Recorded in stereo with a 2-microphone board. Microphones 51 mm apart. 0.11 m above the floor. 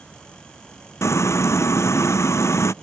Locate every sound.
1.0 s frying: 60° left (ahead or behind)